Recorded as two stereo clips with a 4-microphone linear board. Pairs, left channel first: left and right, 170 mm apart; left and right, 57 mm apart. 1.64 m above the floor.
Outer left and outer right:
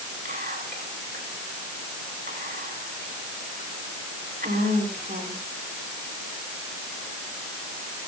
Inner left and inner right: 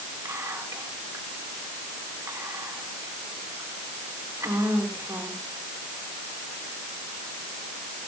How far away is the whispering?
About 5 m.